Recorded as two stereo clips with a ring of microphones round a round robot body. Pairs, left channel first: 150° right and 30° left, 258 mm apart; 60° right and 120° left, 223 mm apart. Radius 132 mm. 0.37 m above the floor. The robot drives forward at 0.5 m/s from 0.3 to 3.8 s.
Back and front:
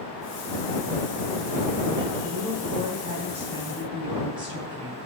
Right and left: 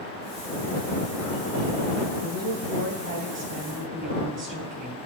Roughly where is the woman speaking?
Left.